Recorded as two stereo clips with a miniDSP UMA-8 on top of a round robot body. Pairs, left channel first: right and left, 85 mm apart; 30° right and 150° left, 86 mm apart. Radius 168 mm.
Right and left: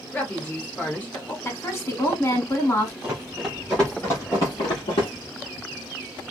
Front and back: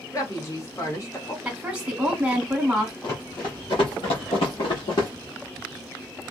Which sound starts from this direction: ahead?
Running footsteps, at 3.0 s.